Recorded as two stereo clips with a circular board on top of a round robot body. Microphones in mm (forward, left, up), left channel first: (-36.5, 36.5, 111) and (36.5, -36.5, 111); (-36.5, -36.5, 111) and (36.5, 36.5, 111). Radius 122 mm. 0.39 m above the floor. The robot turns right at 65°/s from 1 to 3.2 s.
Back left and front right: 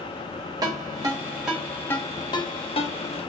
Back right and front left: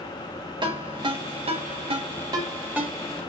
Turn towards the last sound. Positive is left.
turn(degrees=150)